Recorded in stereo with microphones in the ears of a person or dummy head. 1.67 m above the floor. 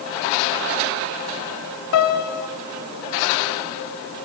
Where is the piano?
75° left (ahead or behind), 3 m.